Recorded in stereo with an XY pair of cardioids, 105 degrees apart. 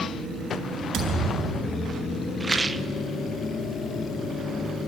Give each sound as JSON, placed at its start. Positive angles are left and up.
{"t": 0.9, "sound": "a thud", "azimuth_deg": -60, "distance_m": 9.0}
{"t": 2.4, "sound": "a rattle", "azimuth_deg": -20, "distance_m": 0.8}